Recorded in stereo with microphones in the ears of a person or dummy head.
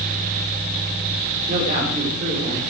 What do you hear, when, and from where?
1.5 s a man speaking: 35° right (ahead or behind), 5 m